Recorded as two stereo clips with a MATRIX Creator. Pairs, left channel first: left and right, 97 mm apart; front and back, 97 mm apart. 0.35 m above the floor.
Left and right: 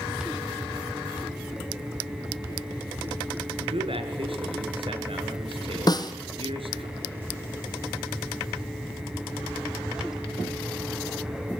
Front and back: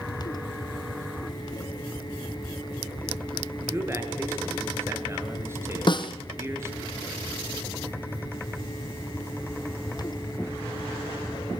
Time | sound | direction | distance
3.6 | a man speaking | 115° right | 6 m
5.9 | a snare drum | 40° left | 2 m